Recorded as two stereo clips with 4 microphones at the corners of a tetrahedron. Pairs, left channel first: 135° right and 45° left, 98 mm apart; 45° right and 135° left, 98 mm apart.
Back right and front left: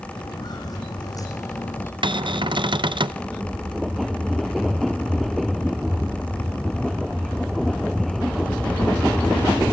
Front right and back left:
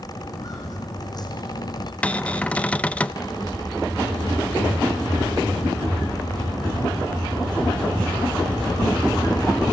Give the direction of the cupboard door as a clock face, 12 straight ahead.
11 o'clock.